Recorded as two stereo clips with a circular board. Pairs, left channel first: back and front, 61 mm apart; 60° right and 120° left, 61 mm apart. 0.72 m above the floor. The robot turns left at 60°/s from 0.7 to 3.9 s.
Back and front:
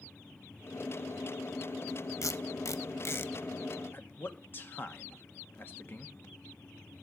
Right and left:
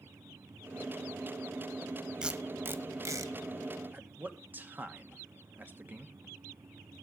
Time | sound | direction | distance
2.2 | tape being pulled | 165° right | 0.8 m
3.9 | a man speaking | 155° left | 1.3 m